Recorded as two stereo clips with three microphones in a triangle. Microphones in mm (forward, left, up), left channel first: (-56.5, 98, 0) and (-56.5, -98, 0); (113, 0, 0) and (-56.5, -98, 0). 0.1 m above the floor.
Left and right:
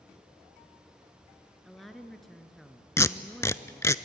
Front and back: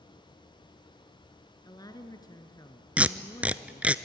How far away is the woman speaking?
About 1.5 m.